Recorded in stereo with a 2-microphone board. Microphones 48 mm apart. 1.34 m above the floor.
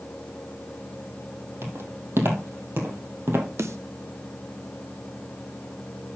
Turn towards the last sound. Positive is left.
turn(degrees=-75)  # may be behind; listen again after turning